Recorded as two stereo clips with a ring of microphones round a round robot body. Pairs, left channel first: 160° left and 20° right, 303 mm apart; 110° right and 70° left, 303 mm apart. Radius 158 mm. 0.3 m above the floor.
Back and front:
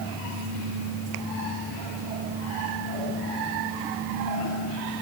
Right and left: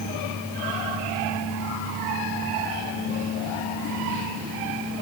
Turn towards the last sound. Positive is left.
No sound to turn to.